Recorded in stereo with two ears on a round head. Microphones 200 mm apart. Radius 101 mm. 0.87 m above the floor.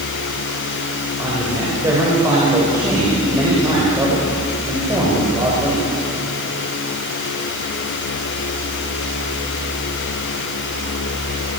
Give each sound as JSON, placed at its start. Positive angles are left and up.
{"t": 1.2, "sound": "a man speaking", "side_deg": -15, "distance_m": 4.5}